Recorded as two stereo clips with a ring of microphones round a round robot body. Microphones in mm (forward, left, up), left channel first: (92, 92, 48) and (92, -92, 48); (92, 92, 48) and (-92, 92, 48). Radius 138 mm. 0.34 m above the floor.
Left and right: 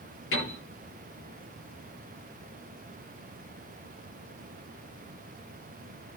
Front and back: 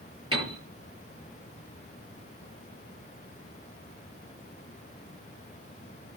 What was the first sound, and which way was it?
A piano, 115° left.